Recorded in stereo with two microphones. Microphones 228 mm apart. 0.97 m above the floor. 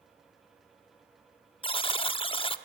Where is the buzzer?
25° left (ahead or behind), 0.7 m.